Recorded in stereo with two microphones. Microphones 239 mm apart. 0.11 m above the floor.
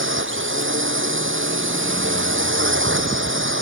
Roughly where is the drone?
Right.